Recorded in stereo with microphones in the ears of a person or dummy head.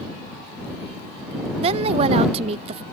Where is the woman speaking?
35° right (ahead or behind).